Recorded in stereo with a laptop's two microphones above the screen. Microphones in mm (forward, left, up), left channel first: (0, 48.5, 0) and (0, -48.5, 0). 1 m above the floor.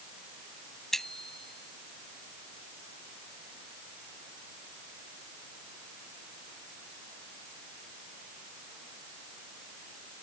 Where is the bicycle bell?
5° left (ahead or behind).